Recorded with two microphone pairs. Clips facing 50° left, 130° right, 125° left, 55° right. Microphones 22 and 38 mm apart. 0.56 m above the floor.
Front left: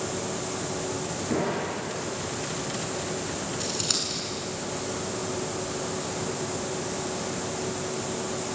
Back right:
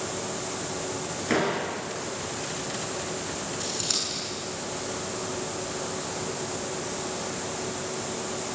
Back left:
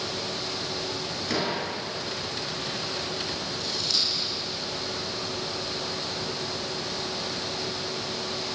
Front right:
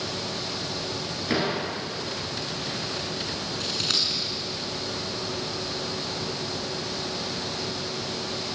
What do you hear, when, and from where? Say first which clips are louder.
1.3 s a door slam: back right 3 dB, front right 3 dB; 130° right, 7 m
3.6 s scissors: front left 1 dB, front right 3 dB; 25° right, 7.5 m